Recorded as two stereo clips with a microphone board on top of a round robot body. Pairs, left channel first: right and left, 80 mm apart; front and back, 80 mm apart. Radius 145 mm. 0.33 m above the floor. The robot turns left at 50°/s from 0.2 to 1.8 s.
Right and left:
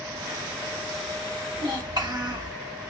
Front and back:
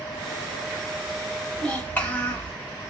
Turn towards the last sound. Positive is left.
turn(degrees=70)